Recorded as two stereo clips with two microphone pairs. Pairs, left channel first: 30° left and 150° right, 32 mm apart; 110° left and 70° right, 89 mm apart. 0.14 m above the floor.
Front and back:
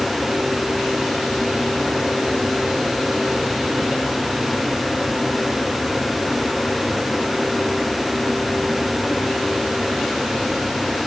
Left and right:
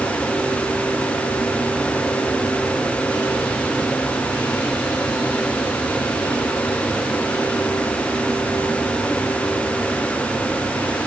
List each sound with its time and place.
Only background noise.